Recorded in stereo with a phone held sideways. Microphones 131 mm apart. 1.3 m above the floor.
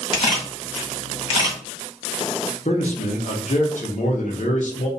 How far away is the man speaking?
About 0.8 m.